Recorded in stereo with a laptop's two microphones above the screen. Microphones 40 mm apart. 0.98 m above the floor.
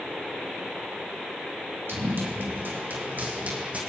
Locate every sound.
1.9 s running footsteps: 65° right (ahead or behind), 3 m; by 3.8 s 35° right (ahead or behind), 3 m